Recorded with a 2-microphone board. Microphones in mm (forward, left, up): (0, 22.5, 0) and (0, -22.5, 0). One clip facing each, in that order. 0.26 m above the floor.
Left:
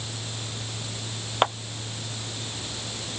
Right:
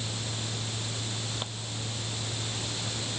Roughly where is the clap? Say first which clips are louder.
Left 16 dB; left.